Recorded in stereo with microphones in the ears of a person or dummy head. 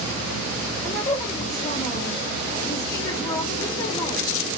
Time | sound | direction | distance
0.8 | a woman speaking | 15° left (ahead or behind) | 1.0 m